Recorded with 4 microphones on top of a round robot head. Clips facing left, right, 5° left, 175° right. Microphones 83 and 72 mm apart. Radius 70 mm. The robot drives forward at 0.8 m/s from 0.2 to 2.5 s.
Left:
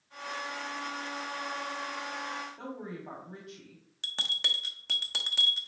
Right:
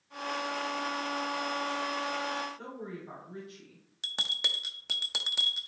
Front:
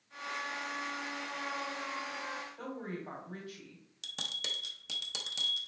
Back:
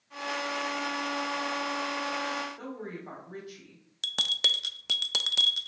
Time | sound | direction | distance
2.6 | a woman speaking | 115° left | 2 m
4.0 | a bell | 165° right | 0.5 m